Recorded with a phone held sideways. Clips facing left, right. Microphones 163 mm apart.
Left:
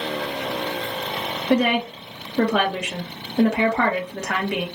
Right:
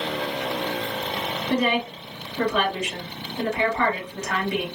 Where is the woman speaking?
65° left (ahead or behind), 1.5 m.